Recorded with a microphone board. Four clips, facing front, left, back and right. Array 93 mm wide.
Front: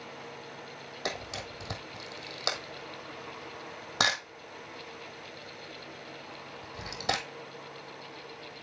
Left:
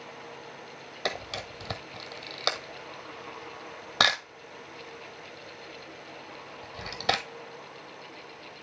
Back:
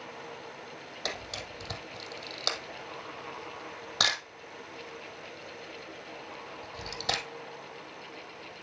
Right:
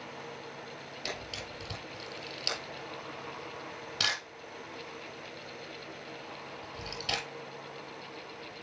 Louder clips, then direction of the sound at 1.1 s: Left 8 dB, front 2 dB; 75° left.